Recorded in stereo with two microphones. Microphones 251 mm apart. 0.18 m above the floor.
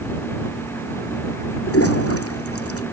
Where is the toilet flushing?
65° left (ahead or behind).